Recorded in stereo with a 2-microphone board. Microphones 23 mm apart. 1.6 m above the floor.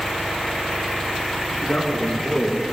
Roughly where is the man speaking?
Left.